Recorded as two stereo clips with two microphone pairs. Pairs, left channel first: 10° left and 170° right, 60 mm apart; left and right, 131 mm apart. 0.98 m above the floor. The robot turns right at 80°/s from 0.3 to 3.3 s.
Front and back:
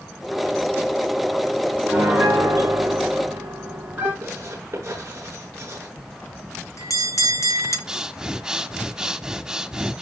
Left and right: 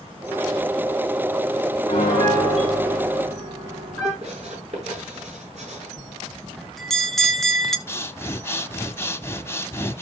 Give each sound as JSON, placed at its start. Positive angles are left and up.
{"t": 1.9, "sound": "a piano", "azimuth_deg": 130, "distance_m": 9.0}
{"t": 4.2, "sound": "writing", "azimuth_deg": -125, "distance_m": 8.0}
{"t": 6.0, "sound": "a bell", "azimuth_deg": 5, "distance_m": 1.3}
{"t": 7.9, "sound": "breathing", "azimuth_deg": 130, "distance_m": 0.9}